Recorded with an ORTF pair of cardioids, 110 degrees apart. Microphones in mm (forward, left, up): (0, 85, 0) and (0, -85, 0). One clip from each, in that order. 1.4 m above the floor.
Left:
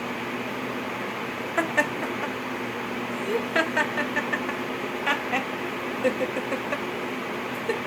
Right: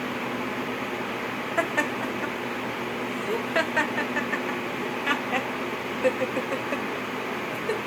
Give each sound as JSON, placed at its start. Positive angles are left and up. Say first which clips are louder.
{"t": 1.6, "sound": "laughter", "louder": "left 2 dB", "azimuth_deg": 10, "distance_m": 0.9}